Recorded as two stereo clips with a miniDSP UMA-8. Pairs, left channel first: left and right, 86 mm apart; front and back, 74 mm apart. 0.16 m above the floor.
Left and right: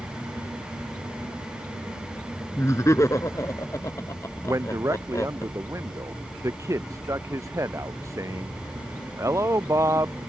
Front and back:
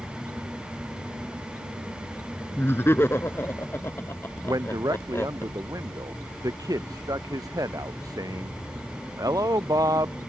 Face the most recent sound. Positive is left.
turn(degrees=-145)